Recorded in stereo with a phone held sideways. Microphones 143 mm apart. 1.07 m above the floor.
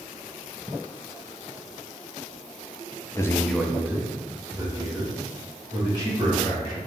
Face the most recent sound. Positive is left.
turn(degrees=-35)  # may be behind; listen again after turning